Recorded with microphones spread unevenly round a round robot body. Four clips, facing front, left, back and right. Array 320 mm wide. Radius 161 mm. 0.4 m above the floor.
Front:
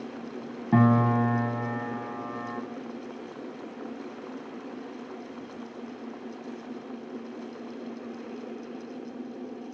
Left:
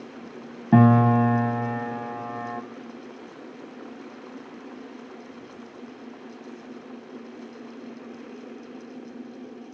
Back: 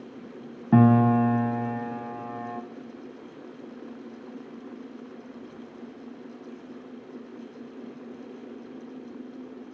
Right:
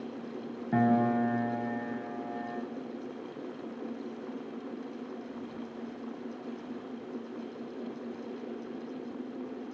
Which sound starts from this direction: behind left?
A piano, at 0.7 s.